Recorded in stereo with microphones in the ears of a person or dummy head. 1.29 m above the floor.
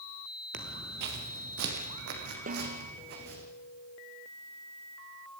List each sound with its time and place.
0.5 s footsteps: 50° right (ahead or behind), 1.8 m; by 3.4 s 55° right (ahead or behind), 5.5 m
2.5 s a snare drum: 45° right (ahead or behind), 1.3 m